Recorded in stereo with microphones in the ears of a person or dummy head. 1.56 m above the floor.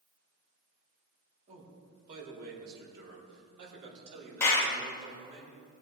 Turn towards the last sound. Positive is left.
turn(degrees=15)  # may be behind; listen again after turning